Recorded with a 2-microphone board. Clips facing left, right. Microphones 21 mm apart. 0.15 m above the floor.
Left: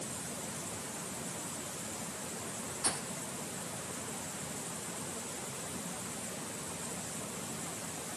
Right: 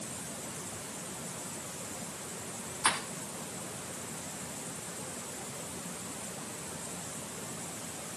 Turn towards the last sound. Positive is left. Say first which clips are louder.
# right 9 dB
turn(degrees=-75)  # may be behind; listen again after turning